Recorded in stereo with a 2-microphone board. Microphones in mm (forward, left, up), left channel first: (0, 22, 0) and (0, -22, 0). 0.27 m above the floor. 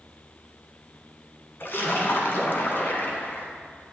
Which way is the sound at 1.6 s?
50° left (ahead or behind).